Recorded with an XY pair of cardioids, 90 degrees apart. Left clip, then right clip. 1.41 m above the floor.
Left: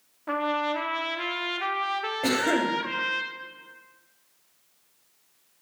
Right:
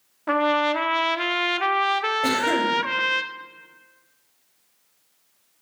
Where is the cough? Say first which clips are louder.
Left 1 dB; 10° left, 2.5 m.